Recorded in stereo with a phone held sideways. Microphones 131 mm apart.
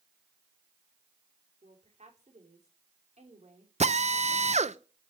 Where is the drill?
60° right (ahead or behind), 0.6 m.